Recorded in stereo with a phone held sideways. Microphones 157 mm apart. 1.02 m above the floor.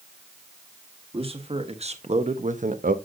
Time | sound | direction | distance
1.1 | a man speaking | 35° right (ahead or behind) | 1.4 m